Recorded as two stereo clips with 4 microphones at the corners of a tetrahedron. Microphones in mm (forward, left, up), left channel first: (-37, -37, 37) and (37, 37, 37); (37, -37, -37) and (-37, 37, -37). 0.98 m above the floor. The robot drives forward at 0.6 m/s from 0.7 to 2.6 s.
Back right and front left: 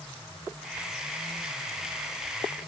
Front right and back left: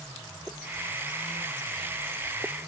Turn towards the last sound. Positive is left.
No sound to turn to.